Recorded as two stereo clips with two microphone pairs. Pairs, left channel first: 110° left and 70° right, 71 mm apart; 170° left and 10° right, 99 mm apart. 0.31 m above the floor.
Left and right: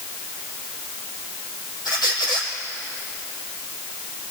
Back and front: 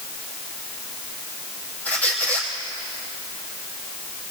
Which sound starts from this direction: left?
A squeak, at 1.9 s.